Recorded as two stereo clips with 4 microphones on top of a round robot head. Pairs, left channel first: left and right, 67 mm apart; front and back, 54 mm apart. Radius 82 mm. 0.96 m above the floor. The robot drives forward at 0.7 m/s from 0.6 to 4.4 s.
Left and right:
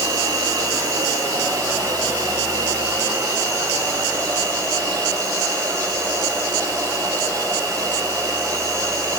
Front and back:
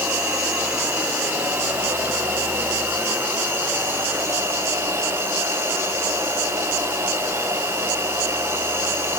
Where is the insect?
105° right, 5.5 m; by 9.2 s 125° right, 6.5 m.